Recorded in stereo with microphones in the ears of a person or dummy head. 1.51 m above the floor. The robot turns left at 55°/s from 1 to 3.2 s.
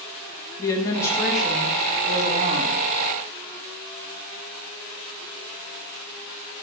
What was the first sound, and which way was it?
A woman speaking, 15° left.